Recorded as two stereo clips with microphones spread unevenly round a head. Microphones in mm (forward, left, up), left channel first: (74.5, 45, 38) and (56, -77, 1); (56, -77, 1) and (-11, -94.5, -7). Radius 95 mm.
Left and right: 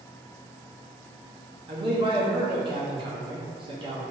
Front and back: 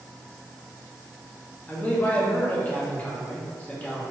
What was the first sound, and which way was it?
A man speaking, 55° right.